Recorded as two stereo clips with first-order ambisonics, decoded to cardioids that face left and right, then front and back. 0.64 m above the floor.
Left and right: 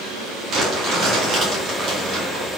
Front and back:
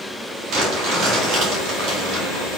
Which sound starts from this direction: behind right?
Crumpling, at 0.5 s.